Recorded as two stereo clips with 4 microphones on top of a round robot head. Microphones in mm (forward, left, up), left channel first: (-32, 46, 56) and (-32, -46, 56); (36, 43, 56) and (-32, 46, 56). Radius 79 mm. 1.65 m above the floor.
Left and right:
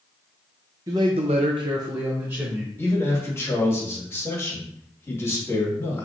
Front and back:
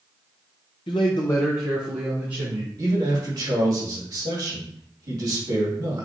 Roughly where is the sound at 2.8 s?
Behind left.